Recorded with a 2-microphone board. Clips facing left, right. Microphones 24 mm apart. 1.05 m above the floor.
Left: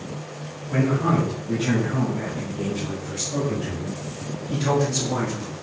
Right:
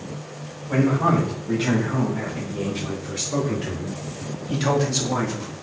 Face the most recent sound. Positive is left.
turn(degrees=-15)  # may be behind; listen again after turning